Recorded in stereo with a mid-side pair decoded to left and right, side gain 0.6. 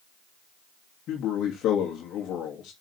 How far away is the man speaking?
About 3 m.